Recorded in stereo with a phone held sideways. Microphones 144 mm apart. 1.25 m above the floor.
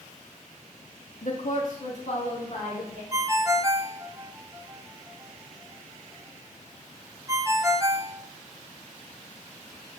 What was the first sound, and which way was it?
A woman speaking, 60° left (ahead or behind).